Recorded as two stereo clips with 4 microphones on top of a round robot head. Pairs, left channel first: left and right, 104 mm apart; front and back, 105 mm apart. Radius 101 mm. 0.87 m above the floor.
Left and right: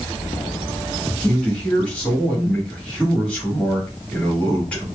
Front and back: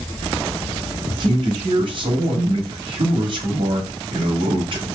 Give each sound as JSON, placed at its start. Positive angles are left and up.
{"t": 1.2, "sound": "a man speaking", "azimuth_deg": 165, "distance_m": 1.6}